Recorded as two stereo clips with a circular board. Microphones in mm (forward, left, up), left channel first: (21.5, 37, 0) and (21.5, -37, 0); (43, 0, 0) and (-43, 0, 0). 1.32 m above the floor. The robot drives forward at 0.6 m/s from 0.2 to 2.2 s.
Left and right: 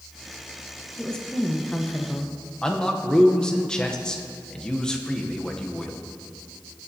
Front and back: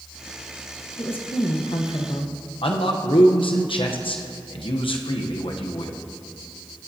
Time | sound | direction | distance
1.0 | a woman speaking | 10° left | 1.5 m
2.6 | a man speaking | 10° left | 0.9 m